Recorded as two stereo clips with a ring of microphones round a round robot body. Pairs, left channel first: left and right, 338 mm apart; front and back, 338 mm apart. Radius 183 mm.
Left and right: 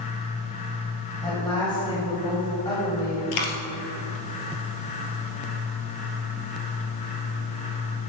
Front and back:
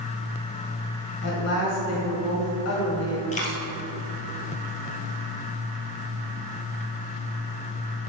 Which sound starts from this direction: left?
A dropped coin, at 3.3 s.